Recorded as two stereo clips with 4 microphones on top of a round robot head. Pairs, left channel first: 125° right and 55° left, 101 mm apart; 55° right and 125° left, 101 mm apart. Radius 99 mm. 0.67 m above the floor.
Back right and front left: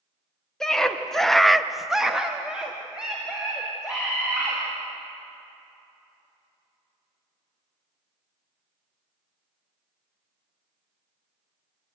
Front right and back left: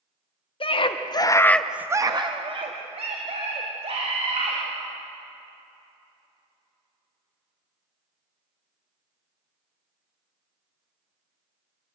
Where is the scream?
40° right, 1.9 m; by 4.6 s 140° left, 4.5 m.